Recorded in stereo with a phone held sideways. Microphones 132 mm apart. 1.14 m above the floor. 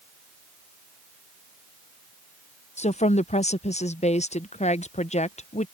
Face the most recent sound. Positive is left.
turn(degrees=55)  # may be behind; listen again after turning